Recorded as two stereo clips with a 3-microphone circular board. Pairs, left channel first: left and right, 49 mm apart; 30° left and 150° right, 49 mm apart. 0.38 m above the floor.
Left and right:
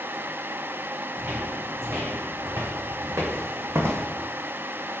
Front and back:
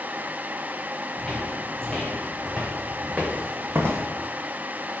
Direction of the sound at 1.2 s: 45° right.